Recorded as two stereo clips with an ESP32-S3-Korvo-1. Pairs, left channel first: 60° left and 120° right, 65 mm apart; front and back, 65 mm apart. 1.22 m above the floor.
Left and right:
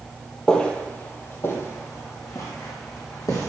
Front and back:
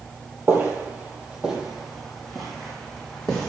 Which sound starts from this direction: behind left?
Footsteps, at 0.5 s.